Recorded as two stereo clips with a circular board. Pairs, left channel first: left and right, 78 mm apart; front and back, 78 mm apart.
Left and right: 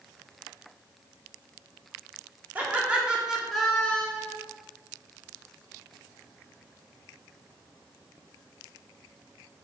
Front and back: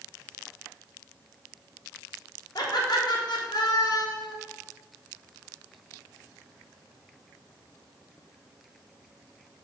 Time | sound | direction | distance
2.5 | laughter | 20° right | 3 m